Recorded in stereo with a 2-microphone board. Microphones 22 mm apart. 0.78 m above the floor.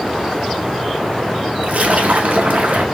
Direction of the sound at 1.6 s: 65° right (ahead or behind).